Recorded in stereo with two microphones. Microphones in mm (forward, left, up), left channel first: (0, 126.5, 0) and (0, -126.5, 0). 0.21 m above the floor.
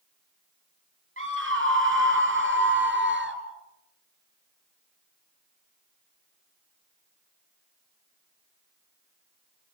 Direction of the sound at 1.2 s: 50° right (ahead or behind).